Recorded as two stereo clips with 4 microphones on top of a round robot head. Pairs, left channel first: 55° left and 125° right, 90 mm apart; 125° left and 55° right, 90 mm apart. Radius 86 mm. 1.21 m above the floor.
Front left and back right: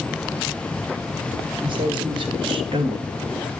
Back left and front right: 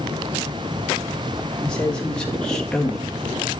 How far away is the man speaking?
About 3.5 m.